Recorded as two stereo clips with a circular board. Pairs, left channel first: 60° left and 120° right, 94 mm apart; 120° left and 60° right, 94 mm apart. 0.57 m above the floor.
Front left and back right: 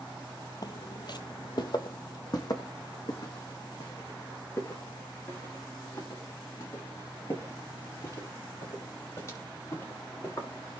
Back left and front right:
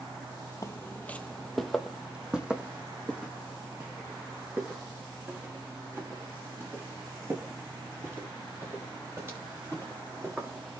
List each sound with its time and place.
0.6 s footsteps: 75° left, 0.7 m; by 10.8 s straight ahead, 6.5 m